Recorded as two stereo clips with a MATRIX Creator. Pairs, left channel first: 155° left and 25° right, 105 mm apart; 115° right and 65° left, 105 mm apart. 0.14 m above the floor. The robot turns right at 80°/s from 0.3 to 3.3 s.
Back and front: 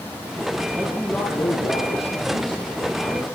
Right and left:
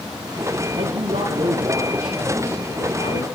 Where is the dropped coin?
I don't hear a dropped coin.